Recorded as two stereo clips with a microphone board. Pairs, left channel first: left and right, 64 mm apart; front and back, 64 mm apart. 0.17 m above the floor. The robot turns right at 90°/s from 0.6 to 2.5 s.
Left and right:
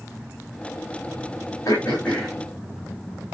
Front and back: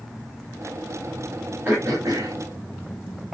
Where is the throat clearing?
120° left, 6.5 m; by 2.3 s straight behind, 6.5 m.